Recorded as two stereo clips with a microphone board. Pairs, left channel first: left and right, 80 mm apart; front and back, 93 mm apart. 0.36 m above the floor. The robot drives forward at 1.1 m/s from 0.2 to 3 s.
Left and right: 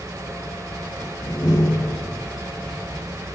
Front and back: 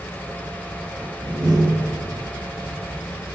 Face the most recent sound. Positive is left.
turn(degrees=145)